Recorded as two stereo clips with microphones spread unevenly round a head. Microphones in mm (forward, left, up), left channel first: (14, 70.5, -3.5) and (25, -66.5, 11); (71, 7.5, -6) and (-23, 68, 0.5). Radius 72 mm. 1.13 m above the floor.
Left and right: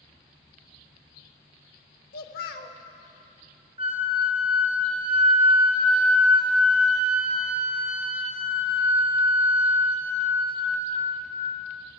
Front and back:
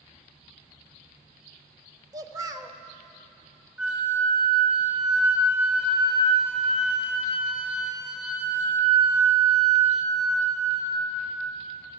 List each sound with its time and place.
2.1 s a child speaking: 85° left, 0.7 m
3.8 s a flute: 135° right, 1.0 m